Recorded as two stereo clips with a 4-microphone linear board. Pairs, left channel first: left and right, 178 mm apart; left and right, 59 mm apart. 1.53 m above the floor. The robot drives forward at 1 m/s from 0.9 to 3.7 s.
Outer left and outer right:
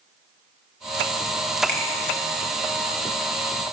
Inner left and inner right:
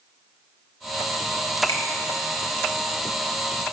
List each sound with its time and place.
1.7 s a finger snap: 70° left (ahead or behind), 1.8 m; by 1.8 s 65° left (ahead or behind), 1.8 m